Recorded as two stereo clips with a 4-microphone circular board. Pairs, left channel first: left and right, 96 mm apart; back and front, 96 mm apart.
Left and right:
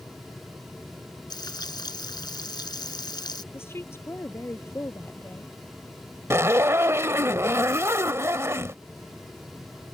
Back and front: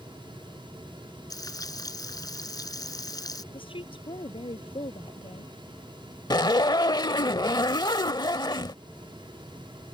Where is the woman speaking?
155° left.